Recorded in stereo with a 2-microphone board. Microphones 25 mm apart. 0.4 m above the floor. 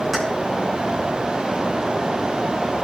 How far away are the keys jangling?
About 2.5 m.